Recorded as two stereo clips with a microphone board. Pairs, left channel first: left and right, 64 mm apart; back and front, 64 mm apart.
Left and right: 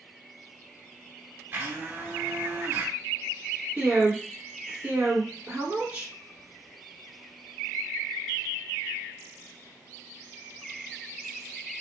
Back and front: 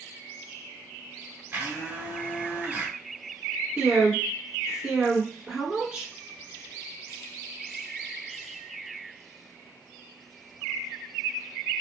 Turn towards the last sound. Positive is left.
turn(degrees=-55)